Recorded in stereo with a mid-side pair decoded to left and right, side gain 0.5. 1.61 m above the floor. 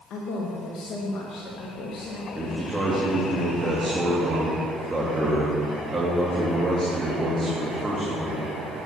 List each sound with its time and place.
0.1 s a man speaking: 65° left, 2.0 m
2.4 s a man speaking: 15° right, 2.5 m